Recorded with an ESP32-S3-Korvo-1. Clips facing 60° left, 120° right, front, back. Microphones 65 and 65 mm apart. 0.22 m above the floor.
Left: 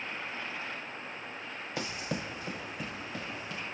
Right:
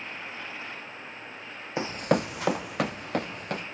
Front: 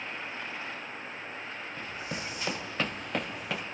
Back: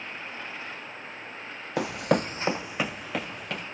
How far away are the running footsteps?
About 0.6 m.